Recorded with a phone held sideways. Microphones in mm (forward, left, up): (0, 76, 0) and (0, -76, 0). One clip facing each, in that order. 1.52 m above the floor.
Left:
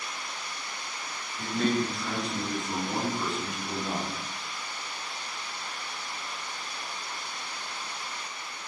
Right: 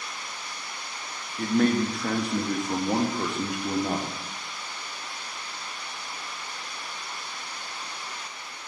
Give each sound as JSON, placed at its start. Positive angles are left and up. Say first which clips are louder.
{"t": 1.4, "sound": "a man speaking", "louder": "right 5 dB", "side_deg": -60, "distance_m": 0.9}